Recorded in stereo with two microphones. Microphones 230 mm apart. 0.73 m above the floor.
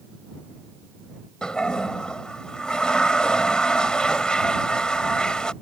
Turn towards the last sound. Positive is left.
turn(degrees=5)  # may be behind; listen again after turning